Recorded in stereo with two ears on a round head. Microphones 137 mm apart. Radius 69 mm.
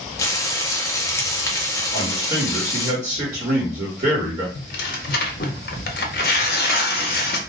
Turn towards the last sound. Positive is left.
turn(degrees=60)  # may be behind; listen again after turning